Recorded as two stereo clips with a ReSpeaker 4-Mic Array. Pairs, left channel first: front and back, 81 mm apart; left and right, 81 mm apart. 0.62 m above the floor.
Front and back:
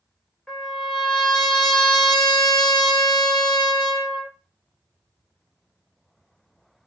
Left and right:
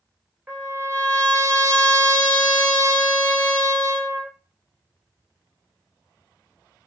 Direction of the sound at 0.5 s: 65° right.